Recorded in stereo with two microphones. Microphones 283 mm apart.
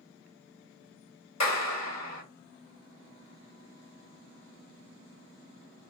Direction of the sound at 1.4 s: 65° left (ahead or behind).